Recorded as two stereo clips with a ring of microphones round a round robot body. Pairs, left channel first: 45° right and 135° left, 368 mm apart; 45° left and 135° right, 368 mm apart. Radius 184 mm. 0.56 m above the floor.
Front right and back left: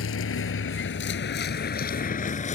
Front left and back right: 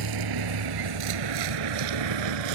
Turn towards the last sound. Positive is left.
turn(degrees=-115)